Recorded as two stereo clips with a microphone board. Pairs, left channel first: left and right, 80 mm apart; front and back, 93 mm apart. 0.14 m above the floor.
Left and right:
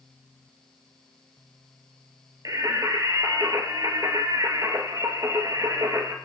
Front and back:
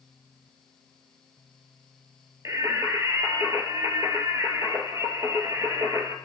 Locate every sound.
2.5 s singing: 125° right, 0.8 m